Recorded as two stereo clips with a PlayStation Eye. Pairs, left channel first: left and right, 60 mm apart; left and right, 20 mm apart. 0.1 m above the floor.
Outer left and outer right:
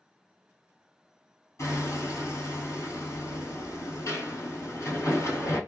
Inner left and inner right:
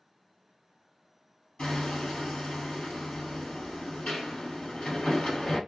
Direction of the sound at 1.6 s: 55° left (ahead or behind).